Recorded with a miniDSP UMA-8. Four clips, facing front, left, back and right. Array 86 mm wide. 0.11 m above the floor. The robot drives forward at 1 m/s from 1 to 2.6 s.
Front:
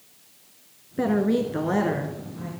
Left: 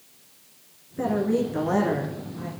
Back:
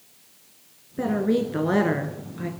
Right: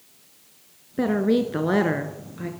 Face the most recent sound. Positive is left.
turn(degrees=-145)